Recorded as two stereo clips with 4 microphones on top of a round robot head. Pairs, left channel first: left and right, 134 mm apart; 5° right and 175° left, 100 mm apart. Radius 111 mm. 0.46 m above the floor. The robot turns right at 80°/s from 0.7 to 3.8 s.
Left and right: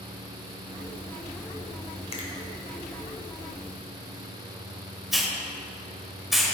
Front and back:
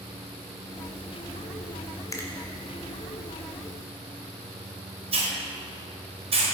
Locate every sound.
2.1 s a finger snap: 45° left, 1.9 m; by 2.3 s 60° left, 1.9 m
5.1 s a hiss: straight behind, 2.5 m